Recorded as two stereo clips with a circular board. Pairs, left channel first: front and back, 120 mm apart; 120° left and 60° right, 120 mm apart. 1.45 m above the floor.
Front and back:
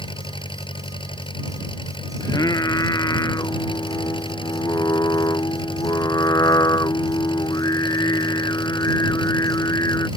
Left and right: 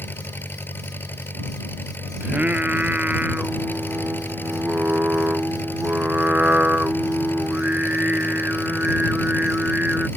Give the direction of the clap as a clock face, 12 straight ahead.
I don't hear a clap.